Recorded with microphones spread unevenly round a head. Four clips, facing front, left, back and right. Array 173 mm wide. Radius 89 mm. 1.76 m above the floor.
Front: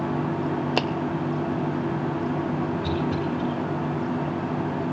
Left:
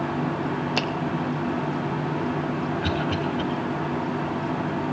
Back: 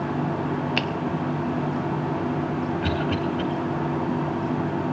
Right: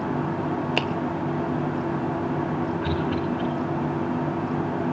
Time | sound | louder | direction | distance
0.8 | a finger snap | even, front 2 dB | 10° right | 0.9 m
2.8 | a cough | even, back 1 dB | 150° left | 10 m